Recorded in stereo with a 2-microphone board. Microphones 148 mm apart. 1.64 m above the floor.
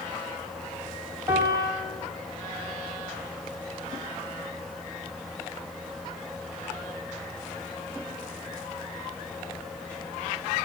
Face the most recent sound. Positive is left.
turn(degrees=-20)  # may be behind; listen again after turning